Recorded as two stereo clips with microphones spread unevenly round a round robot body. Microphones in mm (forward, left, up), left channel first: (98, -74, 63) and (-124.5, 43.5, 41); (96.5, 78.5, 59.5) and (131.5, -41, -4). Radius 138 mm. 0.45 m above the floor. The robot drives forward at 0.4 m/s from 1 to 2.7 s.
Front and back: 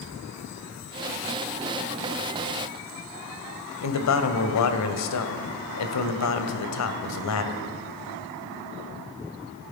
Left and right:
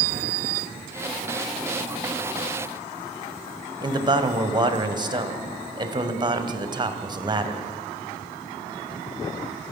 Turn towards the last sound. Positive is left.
turn(degrees=-35)